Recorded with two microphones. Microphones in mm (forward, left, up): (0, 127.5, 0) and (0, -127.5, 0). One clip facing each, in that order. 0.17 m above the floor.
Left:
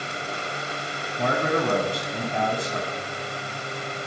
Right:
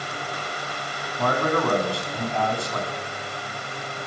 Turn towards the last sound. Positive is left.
turn(degrees=20)  # may be behind; listen again after turning